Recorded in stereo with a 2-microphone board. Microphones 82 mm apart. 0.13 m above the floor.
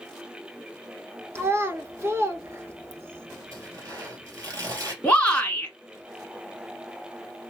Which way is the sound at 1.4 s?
35° right (ahead or behind).